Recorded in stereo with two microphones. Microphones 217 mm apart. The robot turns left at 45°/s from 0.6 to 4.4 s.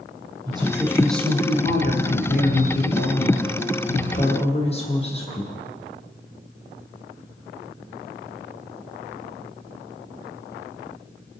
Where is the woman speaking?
160° right, 4.5 m; by 5.5 s 30° left, 4.5 m.